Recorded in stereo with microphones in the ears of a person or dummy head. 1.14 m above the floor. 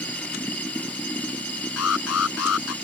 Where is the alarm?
85° left.